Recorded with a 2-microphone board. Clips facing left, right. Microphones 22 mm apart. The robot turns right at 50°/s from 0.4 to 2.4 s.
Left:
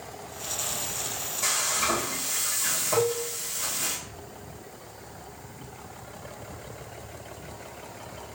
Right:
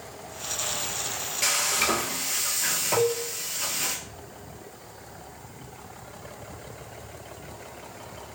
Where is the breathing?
No breathing in this recording.